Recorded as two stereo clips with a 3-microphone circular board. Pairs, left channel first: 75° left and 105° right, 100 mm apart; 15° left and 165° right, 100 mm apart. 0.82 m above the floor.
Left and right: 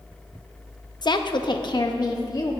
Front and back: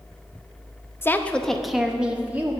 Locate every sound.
1.0 s a woman speaking: 70° left, 0.6 m; by 2.5 s 120° left, 1.2 m